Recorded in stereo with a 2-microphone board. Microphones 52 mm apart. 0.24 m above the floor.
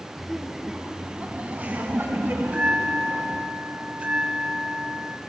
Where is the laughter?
Centre (ahead or behind), 2.5 m; by 3.4 s 65° right (ahead or behind), 3.5 m.